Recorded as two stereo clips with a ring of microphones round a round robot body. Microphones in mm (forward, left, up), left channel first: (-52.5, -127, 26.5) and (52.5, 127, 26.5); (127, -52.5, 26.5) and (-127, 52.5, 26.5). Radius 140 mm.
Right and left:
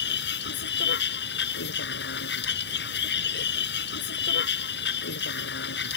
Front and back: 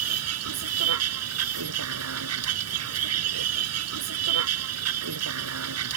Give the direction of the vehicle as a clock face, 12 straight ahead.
6 o'clock.